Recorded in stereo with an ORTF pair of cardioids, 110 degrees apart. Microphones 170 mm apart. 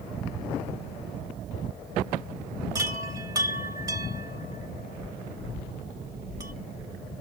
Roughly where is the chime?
Ahead.